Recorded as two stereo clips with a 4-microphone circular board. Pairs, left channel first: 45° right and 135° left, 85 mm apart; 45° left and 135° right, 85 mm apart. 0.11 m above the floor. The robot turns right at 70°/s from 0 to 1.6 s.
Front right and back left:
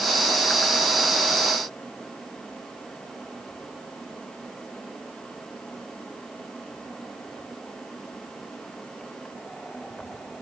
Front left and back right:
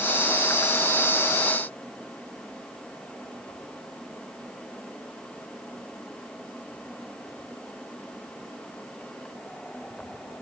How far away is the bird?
I don't hear a bird.